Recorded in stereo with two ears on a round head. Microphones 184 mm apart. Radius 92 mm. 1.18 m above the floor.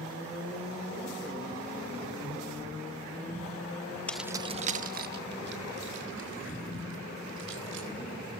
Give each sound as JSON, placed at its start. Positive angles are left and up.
{"t": 4.1, "sound": "keys jangling", "side_deg": 5, "distance_m": 0.7}